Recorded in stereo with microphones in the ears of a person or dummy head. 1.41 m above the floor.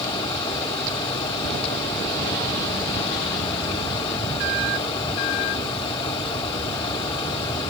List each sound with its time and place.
0.0 s a fan: 25° left (ahead or behind), 2.0 m